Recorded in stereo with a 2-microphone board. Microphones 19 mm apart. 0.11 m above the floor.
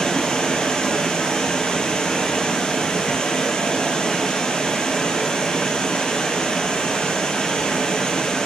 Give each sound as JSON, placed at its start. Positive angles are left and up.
{"t": 0.0, "sound": "running water", "side_deg": 65, "distance_m": 2.0}